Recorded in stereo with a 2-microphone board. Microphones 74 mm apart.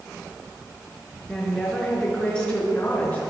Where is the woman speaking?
5° left (ahead or behind), 5.5 m; by 3.2 s 20° left (ahead or behind), 6.5 m.